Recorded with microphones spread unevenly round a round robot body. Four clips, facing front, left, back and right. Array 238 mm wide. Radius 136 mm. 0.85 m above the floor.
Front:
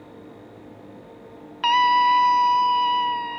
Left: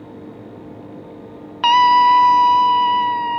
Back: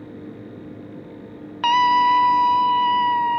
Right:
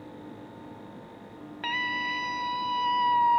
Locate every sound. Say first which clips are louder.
1.6 s a scream: left 22 dB, back 1 dB; 110° left; by 3.4 s 150° left